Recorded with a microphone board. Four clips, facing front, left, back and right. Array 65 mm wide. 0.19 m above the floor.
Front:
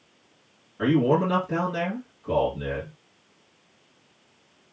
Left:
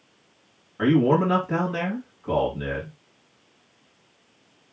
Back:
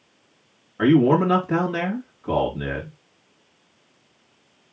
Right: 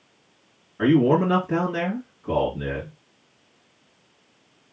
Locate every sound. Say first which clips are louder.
0.8 s a man speaking: right 1 dB, back 5 dB; 155° left, 2.5 m